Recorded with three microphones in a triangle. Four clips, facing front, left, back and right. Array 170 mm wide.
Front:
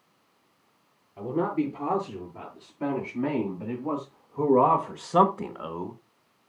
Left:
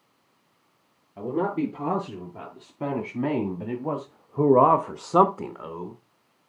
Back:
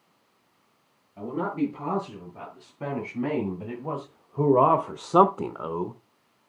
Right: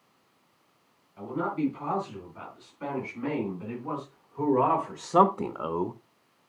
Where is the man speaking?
90° left, 5.5 m; by 6.0 s 115° right, 1.3 m.